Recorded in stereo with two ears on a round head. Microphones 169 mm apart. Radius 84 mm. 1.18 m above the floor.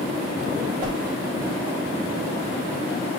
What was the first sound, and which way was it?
A whoosh, 25° right (ahead or behind).